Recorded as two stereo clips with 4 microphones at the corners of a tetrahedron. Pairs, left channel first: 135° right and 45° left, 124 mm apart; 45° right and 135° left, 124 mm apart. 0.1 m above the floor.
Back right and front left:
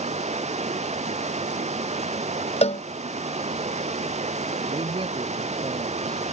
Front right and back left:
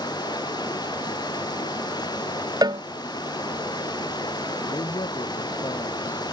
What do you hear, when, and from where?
0.0 s running water: 15° left
2.6 s a cowbell: 165° right
4.7 s a man speaking: 5° left